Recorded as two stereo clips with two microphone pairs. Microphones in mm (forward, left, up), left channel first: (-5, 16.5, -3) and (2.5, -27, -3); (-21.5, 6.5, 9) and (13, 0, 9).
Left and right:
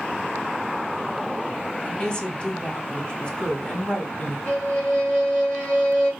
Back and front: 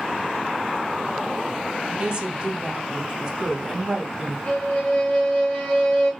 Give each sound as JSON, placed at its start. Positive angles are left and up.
{"t": 1.8, "sound": "a woman speaking", "azimuth_deg": 50, "distance_m": 1.2}
{"t": 4.5, "sound": "a violin", "azimuth_deg": 115, "distance_m": 2.0}